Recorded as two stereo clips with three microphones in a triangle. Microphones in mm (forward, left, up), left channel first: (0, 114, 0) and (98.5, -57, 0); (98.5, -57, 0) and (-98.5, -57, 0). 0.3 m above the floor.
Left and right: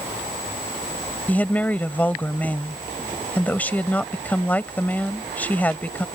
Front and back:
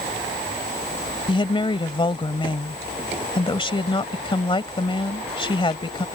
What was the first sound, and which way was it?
A woman speaking, 45° left.